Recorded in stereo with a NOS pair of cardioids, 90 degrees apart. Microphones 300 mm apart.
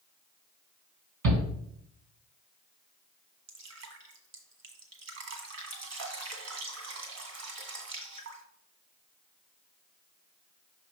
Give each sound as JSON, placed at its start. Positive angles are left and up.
{"t": 1.2, "sound": "a shout", "azimuth_deg": -65, "distance_m": 2.5}
{"t": 3.5, "sound": "dripping", "azimuth_deg": -60, "distance_m": 1.7}